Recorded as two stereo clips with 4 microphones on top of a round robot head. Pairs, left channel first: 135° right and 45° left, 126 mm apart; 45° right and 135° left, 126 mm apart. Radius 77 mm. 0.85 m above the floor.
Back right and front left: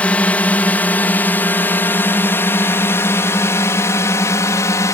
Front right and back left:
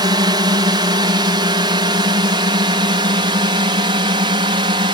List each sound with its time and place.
0.0 s a drone: 155° left; by 5.0 s 165° left